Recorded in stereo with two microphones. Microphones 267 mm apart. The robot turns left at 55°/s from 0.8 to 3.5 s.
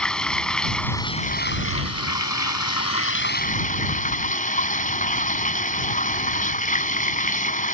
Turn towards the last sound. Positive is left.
turn(degrees=30)